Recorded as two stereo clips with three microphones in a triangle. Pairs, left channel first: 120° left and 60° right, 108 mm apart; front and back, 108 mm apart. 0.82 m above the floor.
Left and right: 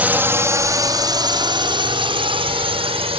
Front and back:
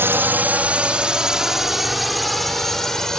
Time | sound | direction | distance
0.0 | a drone | 125° right | ?